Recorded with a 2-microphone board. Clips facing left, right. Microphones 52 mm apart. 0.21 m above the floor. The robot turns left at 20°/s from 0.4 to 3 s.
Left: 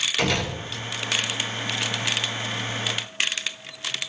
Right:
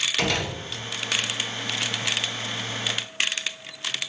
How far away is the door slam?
About 6 m.